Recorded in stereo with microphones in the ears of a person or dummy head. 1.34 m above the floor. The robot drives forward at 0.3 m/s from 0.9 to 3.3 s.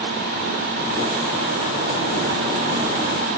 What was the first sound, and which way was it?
Only background noise.